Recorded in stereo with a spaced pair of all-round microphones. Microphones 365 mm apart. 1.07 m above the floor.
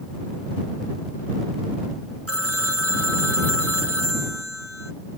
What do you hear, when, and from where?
2.3 s a phone ringing: 40° right (ahead or behind)